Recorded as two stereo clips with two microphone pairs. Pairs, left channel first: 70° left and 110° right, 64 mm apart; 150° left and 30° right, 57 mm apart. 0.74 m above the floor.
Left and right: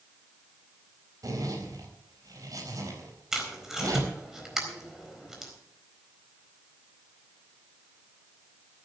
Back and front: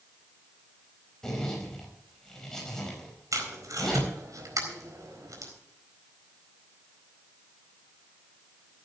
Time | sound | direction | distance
1.2 | a zipper | 130° right | 4 m
3.3 | tape being pulled | 25° right | 4 m